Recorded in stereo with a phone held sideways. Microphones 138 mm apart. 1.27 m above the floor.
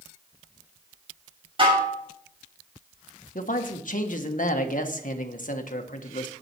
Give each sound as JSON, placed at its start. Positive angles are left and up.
{"t": 1.6, "sound": "dishes clattering", "side_deg": -40, "distance_m": 2.5}
{"t": 3.4, "sound": "a man speaking", "side_deg": 70, "distance_m": 1.3}